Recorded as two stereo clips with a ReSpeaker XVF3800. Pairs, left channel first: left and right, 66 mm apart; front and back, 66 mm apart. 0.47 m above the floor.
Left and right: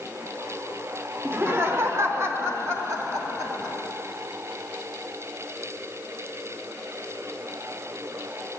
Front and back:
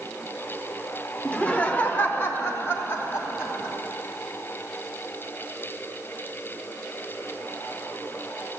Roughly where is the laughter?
Ahead right.